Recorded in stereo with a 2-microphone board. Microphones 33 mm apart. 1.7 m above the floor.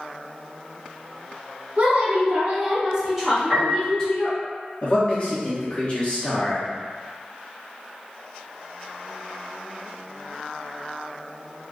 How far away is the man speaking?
About 0.7 m.